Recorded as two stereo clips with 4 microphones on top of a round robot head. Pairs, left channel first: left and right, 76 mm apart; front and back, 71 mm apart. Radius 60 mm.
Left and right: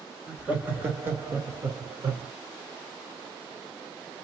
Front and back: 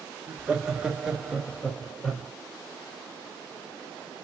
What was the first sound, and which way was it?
Laughter, 145° right.